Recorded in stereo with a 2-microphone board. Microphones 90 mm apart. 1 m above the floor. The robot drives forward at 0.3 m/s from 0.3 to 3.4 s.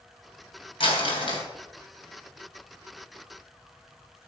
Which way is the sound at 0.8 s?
80° left.